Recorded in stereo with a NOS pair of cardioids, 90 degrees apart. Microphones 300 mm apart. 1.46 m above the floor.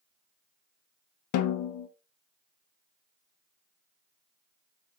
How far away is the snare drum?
About 0.5 m.